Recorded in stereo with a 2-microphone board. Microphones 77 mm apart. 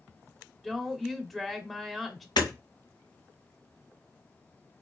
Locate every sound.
0.6 s a woman speaking: centre (ahead or behind), 0.9 m
2.4 s hammering: 65° left (ahead or behind), 1.9 m